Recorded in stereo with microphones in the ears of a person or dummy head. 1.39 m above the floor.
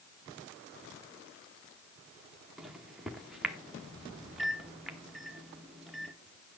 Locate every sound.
2.6 s a microwave: 5° left (ahead or behind), 1.0 m